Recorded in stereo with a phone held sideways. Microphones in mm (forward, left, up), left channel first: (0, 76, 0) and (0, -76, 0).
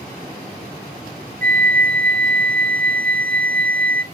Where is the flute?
65° right (ahead or behind), 0.5 m.